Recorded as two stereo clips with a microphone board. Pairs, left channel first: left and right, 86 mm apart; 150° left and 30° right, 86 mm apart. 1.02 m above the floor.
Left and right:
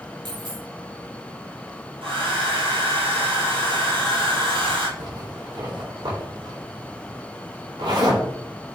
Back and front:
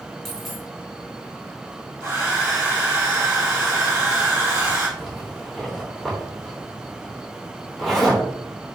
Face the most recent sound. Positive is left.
turn(degrees=-120)